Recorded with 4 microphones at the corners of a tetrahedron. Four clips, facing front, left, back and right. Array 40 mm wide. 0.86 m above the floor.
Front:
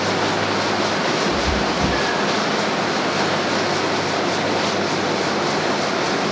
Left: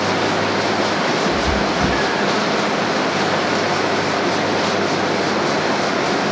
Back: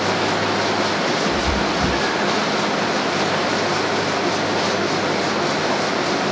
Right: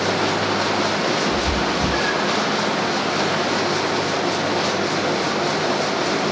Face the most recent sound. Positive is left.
turn(degrees=65)